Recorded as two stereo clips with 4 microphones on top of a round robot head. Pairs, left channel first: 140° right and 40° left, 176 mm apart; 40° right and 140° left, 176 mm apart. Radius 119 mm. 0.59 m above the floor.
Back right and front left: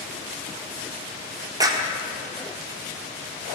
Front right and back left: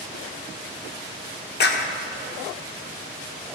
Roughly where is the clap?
Ahead right.